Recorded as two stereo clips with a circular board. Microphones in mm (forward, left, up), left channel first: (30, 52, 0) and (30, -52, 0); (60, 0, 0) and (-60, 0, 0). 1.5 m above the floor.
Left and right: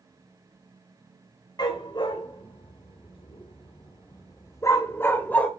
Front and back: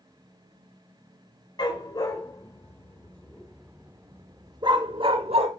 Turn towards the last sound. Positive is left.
turn(degrees=165)